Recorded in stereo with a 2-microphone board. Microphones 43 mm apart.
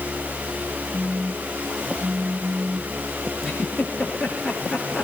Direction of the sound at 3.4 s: 10° left (ahead or behind).